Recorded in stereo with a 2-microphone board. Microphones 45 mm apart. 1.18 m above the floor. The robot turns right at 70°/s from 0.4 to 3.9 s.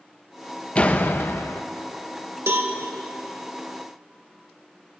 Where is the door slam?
25° left, 0.5 m; by 1.6 s 90° left, 0.5 m.